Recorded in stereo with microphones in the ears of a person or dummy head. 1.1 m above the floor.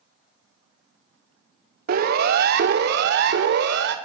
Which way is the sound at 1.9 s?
55° right (ahead or behind).